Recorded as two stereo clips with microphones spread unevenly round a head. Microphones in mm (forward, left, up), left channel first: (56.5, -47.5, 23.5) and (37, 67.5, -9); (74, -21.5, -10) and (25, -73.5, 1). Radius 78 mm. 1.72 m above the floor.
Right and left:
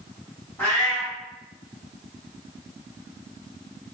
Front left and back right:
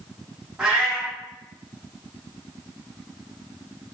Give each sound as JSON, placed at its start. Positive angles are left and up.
{"t": 0.6, "sound": "a cat meowing", "azimuth_deg": -75, "distance_m": 1.2}